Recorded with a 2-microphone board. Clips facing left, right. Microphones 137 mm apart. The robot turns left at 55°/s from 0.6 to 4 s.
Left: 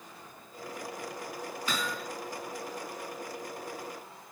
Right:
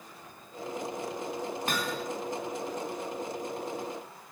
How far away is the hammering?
About 2.5 m.